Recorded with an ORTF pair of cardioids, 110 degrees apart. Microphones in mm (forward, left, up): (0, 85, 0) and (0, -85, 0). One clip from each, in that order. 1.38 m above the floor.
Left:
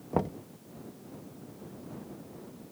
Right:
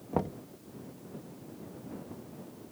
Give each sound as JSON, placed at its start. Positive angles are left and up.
{"t": 0.1, "sound": "knocking", "azimuth_deg": 10}